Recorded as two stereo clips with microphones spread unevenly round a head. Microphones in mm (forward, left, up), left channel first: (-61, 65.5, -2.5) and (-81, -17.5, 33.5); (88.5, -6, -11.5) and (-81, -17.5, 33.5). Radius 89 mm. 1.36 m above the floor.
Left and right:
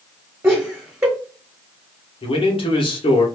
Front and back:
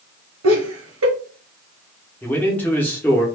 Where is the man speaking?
85° left, 1.1 m.